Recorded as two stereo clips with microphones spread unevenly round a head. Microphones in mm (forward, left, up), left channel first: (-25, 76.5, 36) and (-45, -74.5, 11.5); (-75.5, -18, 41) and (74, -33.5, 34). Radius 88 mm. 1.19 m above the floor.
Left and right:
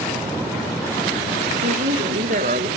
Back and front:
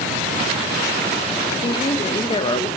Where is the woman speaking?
125° right, 1.7 m.